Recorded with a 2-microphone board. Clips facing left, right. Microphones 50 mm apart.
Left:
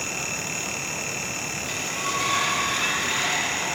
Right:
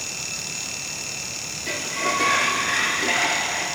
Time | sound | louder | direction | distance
1.7 | a sliding door | right 6 dB | 65° right (ahead or behind) | 1.6 m